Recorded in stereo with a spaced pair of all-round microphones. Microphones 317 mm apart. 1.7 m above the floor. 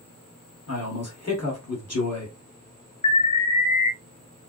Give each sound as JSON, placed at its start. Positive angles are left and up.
{"t": 0.7, "sound": "a man speaking", "side_deg": 50, "distance_m": 1.7}
{"t": 3.0, "sound": "an alarm", "side_deg": 65, "distance_m": 0.7}